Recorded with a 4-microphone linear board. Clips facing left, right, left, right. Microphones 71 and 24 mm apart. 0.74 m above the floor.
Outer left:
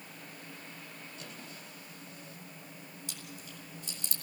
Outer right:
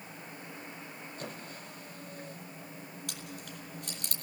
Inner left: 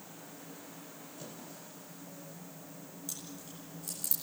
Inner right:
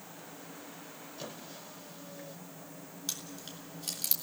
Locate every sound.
1.2 s a squeak: 45° right (ahead or behind), 2.5 m
3.1 s chewing: 60° right (ahead or behind), 3 m